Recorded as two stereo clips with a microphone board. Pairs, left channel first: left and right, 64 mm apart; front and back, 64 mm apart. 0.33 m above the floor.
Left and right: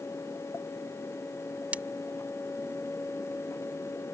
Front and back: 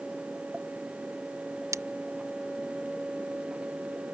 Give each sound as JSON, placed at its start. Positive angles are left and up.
{"t": 1.7, "sound": "breaking glass", "azimuth_deg": -155}